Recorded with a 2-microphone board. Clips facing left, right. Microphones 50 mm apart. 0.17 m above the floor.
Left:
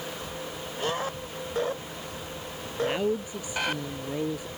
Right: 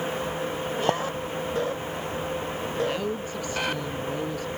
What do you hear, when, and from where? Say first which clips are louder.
0.9 s a clink: right 8 dB; 60° right (ahead or behind)
2.8 s a woman speaking: left 3 dB; 15° left (ahead or behind)